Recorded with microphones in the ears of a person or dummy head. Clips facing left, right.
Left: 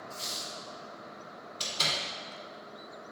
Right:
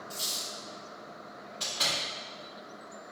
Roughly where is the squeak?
Right.